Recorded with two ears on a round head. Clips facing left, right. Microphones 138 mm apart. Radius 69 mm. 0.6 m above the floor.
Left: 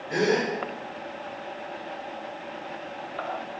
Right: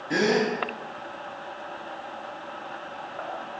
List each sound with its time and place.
0.1 s a gasp: 70° right (ahead or behind), 1.6 m